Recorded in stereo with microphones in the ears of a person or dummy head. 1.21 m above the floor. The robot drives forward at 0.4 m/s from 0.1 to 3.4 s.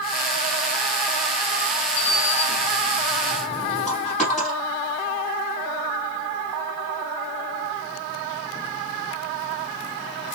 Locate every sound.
2.0 s a sliding door: 50° left (ahead or behind), 0.6 m; by 4.5 s 25° left (ahead or behind), 1.0 m
3.9 s a dropped coin: centre (ahead or behind), 2.5 m